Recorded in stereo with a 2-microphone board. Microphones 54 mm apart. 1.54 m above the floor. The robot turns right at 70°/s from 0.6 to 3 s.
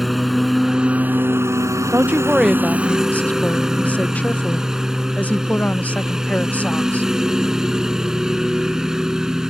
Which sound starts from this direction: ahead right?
A woman speaking, at 1.9 s.